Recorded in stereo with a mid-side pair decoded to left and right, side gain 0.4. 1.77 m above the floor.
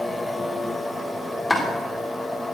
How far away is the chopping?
About 3.5 m.